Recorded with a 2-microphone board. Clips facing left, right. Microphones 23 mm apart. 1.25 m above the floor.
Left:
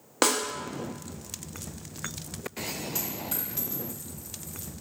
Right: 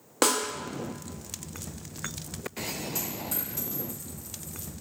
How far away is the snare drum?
About 0.7 m.